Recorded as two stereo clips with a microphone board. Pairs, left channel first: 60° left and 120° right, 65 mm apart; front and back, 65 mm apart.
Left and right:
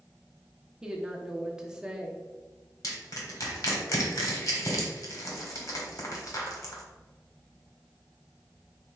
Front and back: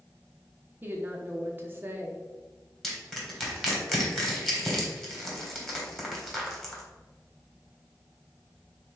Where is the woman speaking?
175° left, 0.8 m.